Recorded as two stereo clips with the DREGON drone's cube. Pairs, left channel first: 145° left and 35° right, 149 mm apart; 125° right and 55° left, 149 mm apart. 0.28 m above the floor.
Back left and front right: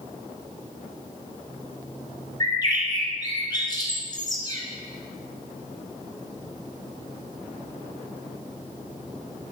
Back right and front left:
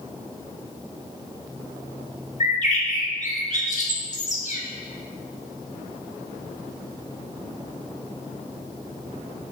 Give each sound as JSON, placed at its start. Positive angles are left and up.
{"t": 2.4, "sound": "a bird", "azimuth_deg": -155, "distance_m": 1.4}